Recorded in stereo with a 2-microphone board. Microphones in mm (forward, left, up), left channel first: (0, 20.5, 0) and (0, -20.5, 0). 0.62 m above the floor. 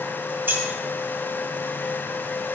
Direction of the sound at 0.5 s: 60° right (ahead or behind).